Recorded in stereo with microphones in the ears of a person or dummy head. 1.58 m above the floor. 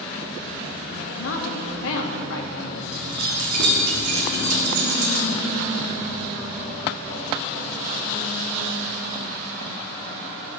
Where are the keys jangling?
50° right (ahead or behind), 3 m.